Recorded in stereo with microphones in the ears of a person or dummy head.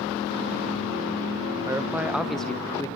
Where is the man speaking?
20° right (ahead or behind), 1.2 m; by 2.9 s 15° left (ahead or behind), 1.1 m.